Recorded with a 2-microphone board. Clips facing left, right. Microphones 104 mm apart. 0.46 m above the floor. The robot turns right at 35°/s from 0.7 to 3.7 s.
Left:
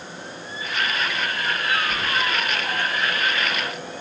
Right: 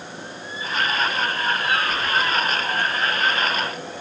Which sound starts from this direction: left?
Keys jangling, at 1.9 s.